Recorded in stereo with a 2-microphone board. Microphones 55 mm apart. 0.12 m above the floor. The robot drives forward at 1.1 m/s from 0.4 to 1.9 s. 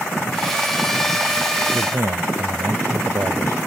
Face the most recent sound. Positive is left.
turn(degrees=-70)  # may be behind; listen again after turning